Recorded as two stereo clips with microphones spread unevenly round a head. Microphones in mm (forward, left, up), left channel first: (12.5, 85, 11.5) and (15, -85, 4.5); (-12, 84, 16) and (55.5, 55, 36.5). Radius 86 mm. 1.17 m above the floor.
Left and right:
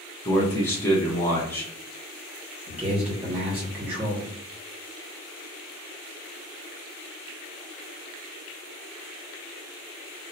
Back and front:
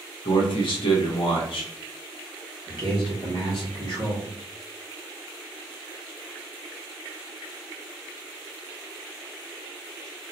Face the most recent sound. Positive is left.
turn(degrees=-170)